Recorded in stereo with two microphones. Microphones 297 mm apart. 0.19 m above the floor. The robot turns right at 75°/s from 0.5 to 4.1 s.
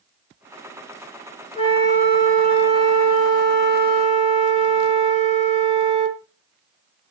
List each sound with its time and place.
1.6 s a flute: 155° left, 3.5 m; by 6.2 s 15° right, 3.5 m